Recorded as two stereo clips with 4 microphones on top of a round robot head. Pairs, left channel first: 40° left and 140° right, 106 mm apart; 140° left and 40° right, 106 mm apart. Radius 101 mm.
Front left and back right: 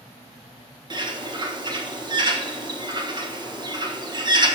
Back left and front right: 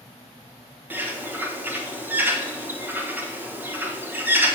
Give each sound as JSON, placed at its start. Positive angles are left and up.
{"t": 0.9, "sound": "a bird", "azimuth_deg": -110, "distance_m": 1.3}